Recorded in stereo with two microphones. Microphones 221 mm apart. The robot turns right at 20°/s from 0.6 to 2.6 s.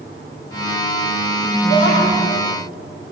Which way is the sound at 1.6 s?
60° right (ahead or behind).